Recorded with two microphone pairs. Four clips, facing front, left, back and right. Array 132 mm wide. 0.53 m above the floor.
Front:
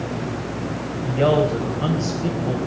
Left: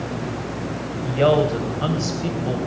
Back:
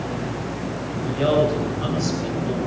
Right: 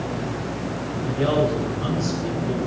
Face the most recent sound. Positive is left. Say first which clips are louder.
# left 4 dB, front 1 dB
turn(degrees=75)